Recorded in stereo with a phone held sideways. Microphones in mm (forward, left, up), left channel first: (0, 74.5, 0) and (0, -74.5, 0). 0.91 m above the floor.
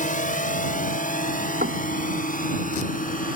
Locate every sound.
0.0 s a drone: 60° left (ahead or behind); by 3.4 s 65° left (ahead or behind)
1.6 s knocking: 70° right (ahead or behind)